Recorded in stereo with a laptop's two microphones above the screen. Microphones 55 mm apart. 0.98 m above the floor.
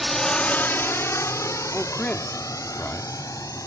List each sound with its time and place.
0.0 s a drone: centre (ahead or behind); by 3.7 s 85° left
1.7 s a man speaking: 20° left (ahead or behind)